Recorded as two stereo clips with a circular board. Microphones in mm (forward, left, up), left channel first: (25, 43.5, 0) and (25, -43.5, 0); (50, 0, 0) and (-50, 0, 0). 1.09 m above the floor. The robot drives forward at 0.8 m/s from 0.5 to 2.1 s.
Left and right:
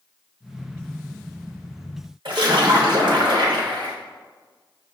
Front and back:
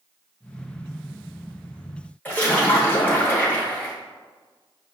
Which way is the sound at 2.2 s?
75° right.